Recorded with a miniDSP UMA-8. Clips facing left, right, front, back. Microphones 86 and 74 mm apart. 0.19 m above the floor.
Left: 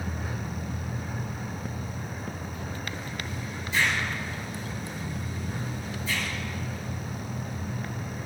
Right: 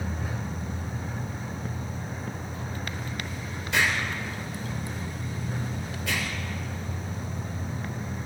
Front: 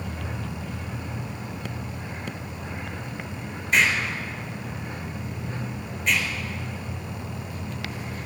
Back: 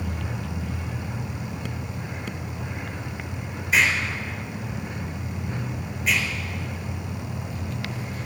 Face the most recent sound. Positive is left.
turn(degrees=-90)